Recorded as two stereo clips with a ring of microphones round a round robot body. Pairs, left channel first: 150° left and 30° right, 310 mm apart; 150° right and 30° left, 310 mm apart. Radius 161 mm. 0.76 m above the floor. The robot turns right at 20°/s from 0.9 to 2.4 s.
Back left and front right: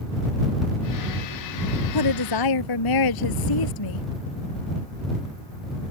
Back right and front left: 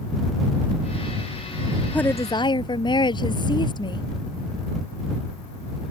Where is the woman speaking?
125° left; by 4.1 s 135° left.